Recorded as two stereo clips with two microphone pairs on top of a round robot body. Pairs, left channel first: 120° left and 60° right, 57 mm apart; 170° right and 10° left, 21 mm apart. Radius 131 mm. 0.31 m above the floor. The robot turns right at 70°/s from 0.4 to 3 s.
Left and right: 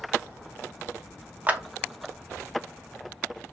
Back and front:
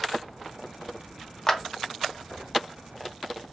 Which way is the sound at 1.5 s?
85° right.